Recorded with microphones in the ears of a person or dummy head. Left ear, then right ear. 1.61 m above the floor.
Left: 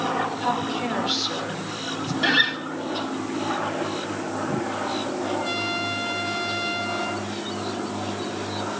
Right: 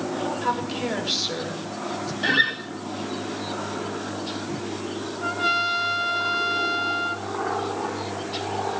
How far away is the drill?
I don't hear a drill.